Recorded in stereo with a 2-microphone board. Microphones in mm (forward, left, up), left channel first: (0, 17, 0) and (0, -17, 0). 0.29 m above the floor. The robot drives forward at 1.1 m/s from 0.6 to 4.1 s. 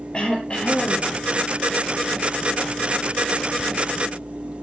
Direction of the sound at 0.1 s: 30° left (ahead or behind).